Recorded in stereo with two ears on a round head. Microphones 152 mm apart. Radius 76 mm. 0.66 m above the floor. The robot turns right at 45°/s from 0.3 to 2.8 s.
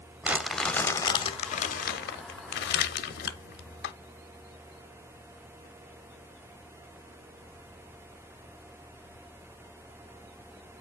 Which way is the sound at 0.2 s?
10° right (ahead or behind).